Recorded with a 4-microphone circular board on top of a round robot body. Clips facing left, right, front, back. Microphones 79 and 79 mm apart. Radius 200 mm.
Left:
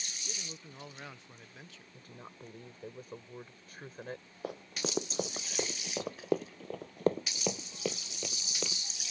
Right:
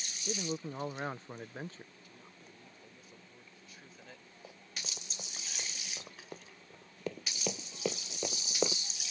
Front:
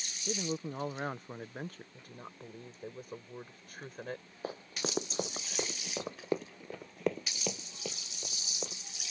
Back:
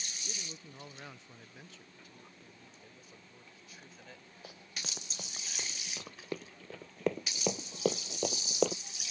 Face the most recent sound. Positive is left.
turn(degrees=-150)